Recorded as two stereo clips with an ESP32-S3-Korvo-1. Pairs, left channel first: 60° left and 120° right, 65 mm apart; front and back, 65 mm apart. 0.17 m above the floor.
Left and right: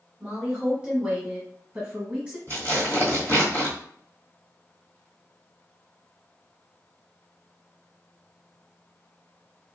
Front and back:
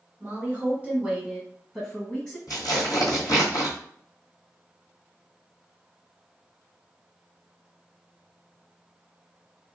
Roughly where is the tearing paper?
Ahead.